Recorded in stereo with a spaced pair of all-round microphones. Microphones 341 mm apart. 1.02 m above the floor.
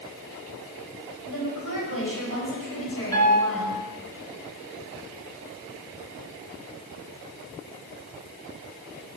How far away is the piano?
About 3 m.